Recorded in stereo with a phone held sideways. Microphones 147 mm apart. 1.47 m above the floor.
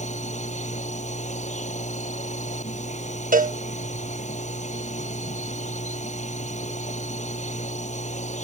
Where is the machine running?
55° left (ahead or behind).